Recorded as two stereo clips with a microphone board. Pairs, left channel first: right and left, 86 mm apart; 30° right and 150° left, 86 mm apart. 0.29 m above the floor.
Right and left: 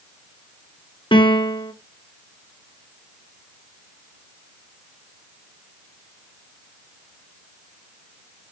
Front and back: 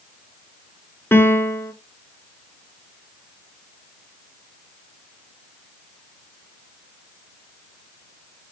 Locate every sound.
1.1 s a piano: 90° right, 1.3 m